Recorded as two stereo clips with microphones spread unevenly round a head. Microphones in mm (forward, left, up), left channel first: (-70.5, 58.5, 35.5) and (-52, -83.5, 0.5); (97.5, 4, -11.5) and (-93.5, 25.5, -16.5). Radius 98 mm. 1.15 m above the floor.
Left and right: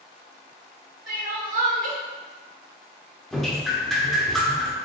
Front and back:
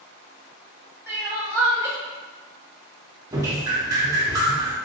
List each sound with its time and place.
1.1 s crying: 110° right, 0.8 m
3.3 s dripping: 145° right, 0.5 m